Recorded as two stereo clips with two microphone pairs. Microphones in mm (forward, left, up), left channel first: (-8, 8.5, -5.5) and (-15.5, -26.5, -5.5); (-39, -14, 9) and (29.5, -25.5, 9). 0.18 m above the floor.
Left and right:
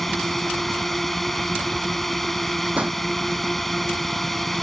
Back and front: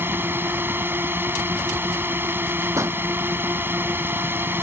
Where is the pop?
55° right.